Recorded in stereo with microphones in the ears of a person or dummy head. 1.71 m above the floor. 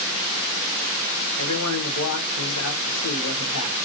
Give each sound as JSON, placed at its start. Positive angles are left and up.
{"t": 1.4, "sound": "a man speaking", "side_deg": 90, "distance_m": 1.4}